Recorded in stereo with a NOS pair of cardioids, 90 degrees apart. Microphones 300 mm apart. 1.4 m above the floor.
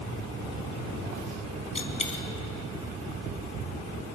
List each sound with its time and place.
1.8 s a dropped coin: 25° left, 3.5 m